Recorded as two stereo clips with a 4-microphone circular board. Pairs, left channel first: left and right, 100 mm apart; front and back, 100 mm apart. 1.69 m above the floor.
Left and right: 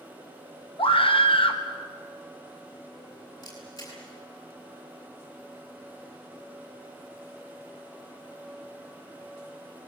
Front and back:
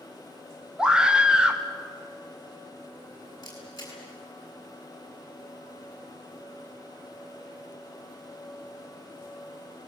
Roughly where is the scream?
Left.